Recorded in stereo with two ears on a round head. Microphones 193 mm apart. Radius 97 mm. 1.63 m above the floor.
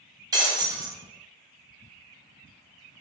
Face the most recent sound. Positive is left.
turn(degrees=-20)  # may be behind; listen again after turning